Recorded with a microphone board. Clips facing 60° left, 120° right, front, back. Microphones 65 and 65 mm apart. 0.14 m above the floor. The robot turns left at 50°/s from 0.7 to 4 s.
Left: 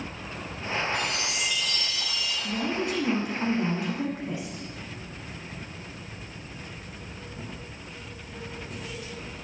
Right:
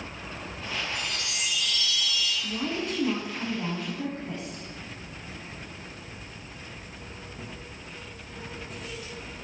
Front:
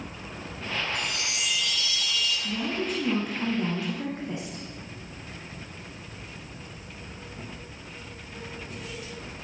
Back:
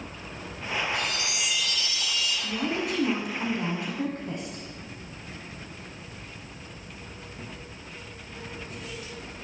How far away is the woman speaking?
About 7.5 m.